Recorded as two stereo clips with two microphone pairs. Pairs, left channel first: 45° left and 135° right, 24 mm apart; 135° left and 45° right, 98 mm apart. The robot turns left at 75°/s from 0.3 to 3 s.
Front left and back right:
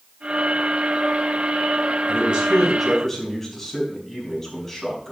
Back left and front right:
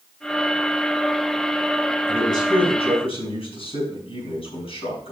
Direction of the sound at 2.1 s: 165° right.